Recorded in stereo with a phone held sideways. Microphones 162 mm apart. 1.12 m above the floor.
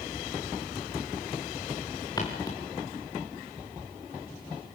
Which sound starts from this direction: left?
Footsteps, at 2.2 s.